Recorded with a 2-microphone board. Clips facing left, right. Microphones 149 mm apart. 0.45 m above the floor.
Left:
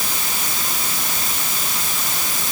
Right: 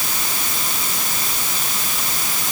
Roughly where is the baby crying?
No baby crying in this recording.